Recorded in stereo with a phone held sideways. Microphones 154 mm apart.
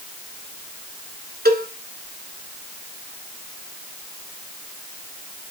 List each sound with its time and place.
1.4 s a cowbell: 80° right, 2.5 m